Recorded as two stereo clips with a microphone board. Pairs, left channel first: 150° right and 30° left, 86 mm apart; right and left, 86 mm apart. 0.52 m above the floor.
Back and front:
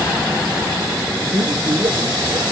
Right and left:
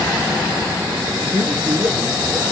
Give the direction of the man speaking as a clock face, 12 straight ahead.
10 o'clock.